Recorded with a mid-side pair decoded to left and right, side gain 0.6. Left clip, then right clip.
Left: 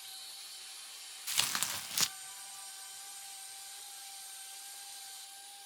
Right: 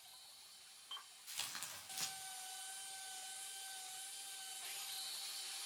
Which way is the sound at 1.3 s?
65° left.